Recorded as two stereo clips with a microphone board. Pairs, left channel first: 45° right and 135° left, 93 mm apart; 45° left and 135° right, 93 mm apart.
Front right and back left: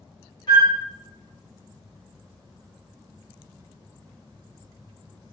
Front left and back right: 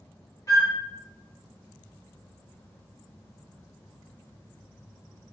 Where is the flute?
5° right, 2 m.